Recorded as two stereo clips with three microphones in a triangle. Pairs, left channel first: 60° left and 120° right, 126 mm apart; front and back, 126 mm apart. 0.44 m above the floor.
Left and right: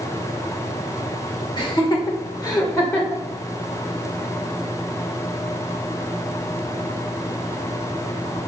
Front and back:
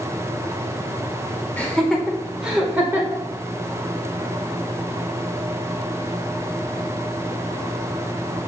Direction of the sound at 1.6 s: 70° left.